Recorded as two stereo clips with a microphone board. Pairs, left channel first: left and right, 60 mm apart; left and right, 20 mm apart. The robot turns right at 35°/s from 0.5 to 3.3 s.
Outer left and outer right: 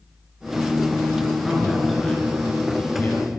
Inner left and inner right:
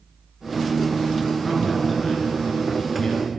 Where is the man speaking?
15° right, 3.5 m; by 3.4 s 50° left, 3.5 m.